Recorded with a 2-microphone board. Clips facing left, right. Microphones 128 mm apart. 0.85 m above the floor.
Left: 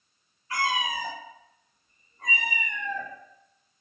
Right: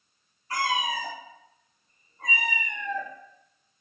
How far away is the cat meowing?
About 0.7 m.